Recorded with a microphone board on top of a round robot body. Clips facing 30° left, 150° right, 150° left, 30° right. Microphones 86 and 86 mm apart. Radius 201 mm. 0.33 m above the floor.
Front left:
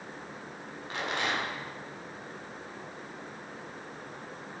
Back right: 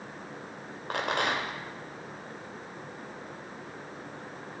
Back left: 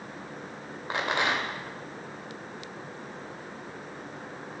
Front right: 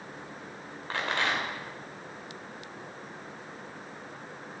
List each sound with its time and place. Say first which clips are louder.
0.9 s a rattle: back right 3 dB, back left 2 dB; 140° right, 2.5 m